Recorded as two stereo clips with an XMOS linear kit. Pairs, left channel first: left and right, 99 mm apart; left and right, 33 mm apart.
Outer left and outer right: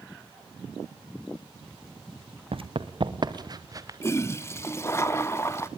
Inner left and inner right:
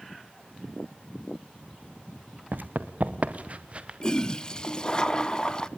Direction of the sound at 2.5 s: 65° right (ahead or behind).